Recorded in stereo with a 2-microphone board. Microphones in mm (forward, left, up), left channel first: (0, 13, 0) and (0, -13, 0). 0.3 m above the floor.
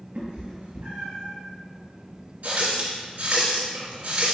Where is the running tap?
75° right (ahead or behind), 2.5 m.